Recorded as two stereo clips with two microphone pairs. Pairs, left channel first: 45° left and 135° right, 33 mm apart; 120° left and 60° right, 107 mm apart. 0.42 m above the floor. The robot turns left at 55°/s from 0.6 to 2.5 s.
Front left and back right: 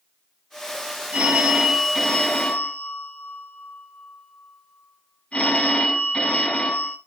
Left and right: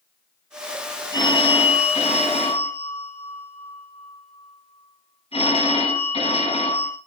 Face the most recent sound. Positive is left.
turn(degrees=95)